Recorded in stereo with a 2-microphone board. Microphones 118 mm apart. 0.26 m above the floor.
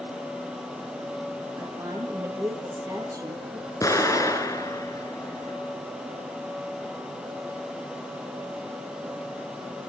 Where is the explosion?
25° left (ahead or behind), 3.5 m.